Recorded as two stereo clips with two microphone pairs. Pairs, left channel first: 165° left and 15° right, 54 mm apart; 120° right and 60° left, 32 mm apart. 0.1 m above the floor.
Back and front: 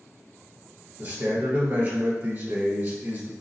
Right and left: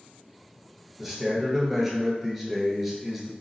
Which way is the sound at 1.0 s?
25° right.